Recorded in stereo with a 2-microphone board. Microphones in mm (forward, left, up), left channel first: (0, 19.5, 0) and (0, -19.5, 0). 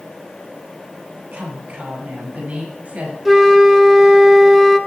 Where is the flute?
5° right (ahead or behind), 0.9 m.